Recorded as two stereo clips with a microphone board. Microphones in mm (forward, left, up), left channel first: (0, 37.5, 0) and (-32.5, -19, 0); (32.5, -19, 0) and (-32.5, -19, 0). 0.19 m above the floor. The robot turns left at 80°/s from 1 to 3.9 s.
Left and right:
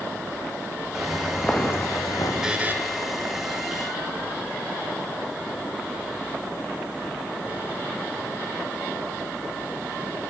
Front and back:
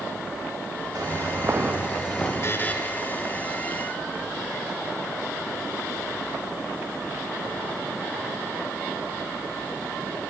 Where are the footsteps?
155° left, 2.5 m; by 2.3 s 80° left, 3.5 m.